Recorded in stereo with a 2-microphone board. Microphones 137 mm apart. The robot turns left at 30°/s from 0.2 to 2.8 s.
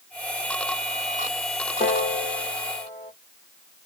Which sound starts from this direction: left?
A piano, at 1.8 s.